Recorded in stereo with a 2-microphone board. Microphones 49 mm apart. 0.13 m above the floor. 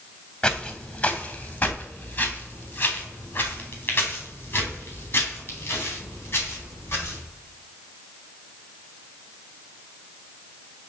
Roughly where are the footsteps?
Left.